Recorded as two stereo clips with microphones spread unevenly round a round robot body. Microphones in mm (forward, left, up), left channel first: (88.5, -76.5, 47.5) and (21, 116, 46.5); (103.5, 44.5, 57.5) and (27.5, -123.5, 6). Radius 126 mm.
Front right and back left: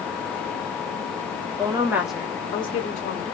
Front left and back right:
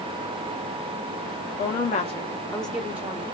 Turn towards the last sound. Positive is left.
turn(degrees=-80)